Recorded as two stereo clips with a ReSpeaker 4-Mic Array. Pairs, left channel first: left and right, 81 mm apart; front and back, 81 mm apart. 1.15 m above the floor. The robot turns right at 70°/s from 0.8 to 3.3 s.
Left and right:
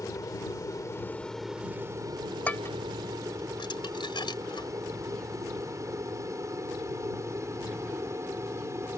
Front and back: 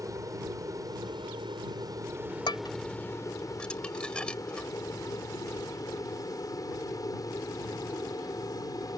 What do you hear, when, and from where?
0.0 s an aircraft: 135° left; by 9.0 s 35° right
2.5 s dishes clattering: 20° left; by 4.7 s 80° left